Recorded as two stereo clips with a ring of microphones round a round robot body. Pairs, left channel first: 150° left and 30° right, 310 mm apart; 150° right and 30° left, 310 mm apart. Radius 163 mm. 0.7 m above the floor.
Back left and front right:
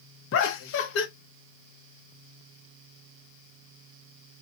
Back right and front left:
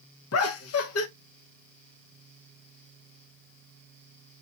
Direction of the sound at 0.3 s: 175° right.